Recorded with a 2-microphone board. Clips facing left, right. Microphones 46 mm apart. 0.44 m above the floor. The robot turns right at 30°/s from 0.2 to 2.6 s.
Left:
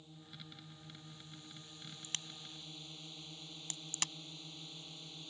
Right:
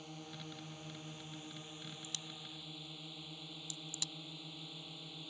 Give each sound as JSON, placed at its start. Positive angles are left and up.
{"t": 0.0, "sound": "a drone", "azimuth_deg": -85}
{"t": 2.0, "sound": "a crack", "side_deg": 45}